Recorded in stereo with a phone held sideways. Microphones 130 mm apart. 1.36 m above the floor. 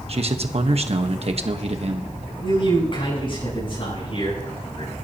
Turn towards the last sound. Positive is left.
turn(degrees=40)  # may be behind; listen again after turning